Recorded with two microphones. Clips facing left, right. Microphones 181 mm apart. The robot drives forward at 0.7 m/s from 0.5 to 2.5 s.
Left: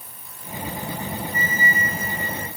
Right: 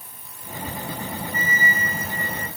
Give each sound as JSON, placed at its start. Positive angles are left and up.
{"t": 1.3, "sound": "a flute", "side_deg": -90, "distance_m": 3.5}